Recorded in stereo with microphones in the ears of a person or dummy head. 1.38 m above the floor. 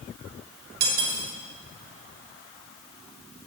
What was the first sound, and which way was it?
Cutlery clinking, 60° right (ahead or behind).